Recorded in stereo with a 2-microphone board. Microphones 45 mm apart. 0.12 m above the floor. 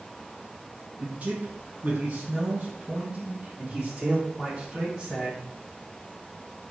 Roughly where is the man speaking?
Right.